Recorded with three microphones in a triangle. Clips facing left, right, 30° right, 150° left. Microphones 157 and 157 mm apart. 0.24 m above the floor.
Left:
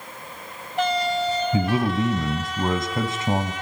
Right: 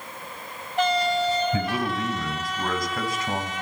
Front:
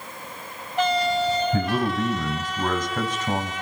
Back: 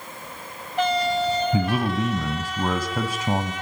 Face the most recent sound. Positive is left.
turn(degrees=85)